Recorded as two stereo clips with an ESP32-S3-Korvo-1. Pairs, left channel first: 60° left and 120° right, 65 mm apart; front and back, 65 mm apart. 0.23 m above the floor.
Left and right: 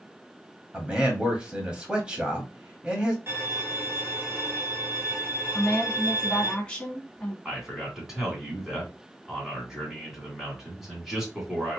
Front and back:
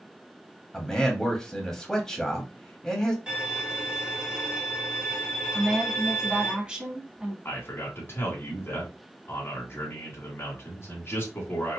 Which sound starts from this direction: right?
A man speaking, at 0.7 s.